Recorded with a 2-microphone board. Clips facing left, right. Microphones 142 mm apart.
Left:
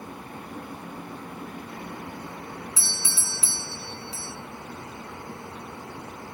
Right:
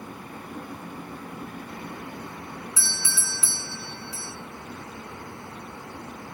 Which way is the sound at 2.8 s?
25° left (ahead or behind).